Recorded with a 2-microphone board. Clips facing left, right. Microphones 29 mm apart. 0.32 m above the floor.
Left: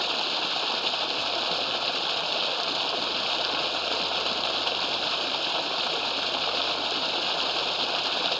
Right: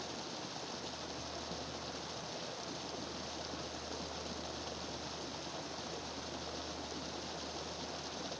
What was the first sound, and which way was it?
Running water, 70° left (ahead or behind).